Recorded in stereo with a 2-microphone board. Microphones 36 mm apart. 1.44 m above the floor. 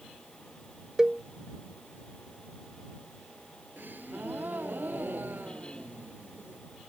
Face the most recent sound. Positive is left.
turn(degrees=-60)  # may be behind; listen again after turning